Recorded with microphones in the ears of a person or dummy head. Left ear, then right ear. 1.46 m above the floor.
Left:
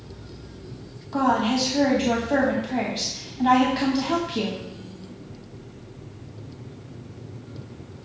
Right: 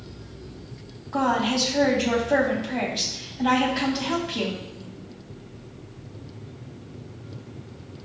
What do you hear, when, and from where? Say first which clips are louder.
1.1 s a woman speaking: left 1 dB; centre (ahead or behind), 0.6 m